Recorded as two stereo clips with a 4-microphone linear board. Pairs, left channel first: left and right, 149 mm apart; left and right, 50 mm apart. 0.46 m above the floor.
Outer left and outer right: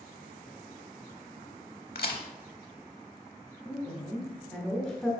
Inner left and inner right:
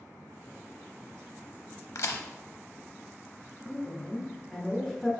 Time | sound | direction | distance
1.9 | a crack | 75° left (ahead or behind) | 0.6 m
3.6 | a woman speaking | centre (ahead or behind) | 0.9 m